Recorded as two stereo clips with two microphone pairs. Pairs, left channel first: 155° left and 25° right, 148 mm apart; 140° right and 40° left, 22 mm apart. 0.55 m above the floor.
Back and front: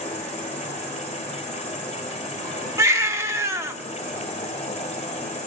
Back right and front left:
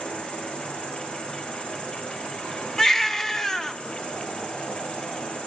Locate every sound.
0.0 s an insect: 165° right, 4 m
2.8 s a baby crying: 85° right, 0.8 m